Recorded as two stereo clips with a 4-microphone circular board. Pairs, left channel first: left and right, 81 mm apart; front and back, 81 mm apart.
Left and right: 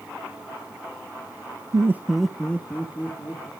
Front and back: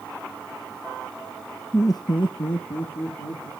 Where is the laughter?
60° right, 0.5 m; by 3.5 s 25° left, 2.5 m.